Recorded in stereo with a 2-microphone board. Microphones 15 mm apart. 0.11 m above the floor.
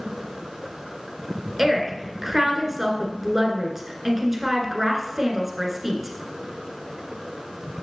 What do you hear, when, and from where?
1.6 s a woman speaking: 20° right (ahead or behind), 1.6 m